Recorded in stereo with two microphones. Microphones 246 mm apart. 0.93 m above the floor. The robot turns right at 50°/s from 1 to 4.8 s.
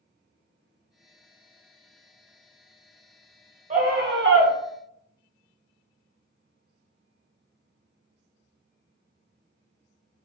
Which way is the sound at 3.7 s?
145° right.